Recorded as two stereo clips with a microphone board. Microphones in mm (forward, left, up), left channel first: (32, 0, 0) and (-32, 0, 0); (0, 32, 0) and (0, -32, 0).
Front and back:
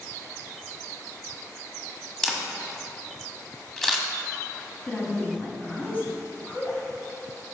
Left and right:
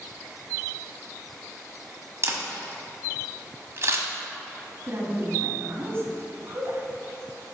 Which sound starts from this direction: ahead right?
A woman speaking, at 4.8 s.